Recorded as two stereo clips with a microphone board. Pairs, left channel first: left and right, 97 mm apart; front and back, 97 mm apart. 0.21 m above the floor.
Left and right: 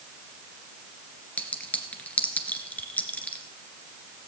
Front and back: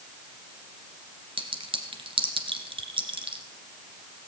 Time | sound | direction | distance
1.4 | a clink | 165° left | 2 m